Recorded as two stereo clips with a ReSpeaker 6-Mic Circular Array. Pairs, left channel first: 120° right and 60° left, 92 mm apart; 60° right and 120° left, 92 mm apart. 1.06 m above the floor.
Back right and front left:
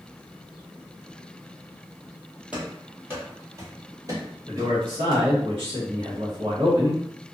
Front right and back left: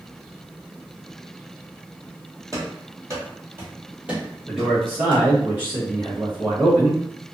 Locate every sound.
2.5 s running footsteps: 130° left, 1.3 m; by 5.3 s 25° left, 1.6 m
4.5 s a man speaking: 50° left, 1.3 m